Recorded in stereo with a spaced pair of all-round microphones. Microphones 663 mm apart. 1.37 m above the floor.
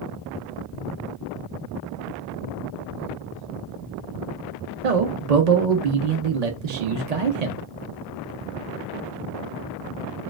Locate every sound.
4.8 s a man speaking: 70° right (ahead or behind), 0.7 m